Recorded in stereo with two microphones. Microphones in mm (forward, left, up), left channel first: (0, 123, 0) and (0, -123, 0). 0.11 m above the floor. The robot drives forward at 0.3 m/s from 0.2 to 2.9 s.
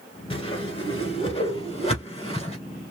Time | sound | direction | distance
0.3 | a whoosh | 20° left (ahead or behind) | 1.4 m